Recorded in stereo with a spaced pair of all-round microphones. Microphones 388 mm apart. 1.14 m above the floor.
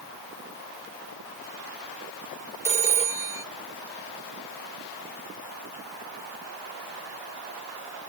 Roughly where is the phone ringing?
Centre.